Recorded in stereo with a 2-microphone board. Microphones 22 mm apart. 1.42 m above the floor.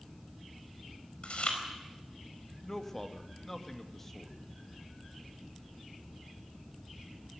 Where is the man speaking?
15° left (ahead or behind), 2.5 m.